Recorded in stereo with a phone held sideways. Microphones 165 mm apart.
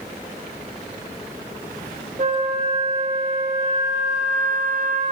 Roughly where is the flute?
Right.